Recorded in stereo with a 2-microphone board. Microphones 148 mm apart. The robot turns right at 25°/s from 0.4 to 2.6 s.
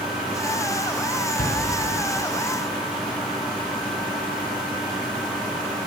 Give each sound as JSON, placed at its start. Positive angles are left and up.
{"t": 1.4, "sound": "a shout", "side_deg": 80, "distance_m": 5.0}